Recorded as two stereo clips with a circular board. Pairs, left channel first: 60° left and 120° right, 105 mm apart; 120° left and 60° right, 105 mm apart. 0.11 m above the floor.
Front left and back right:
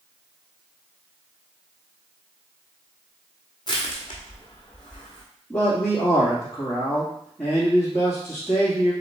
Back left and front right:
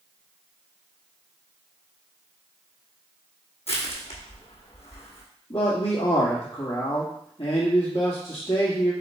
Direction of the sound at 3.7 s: 110° left.